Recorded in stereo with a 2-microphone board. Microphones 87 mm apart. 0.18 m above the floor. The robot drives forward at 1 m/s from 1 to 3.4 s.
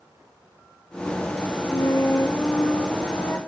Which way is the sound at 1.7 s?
50° left (ahead or behind).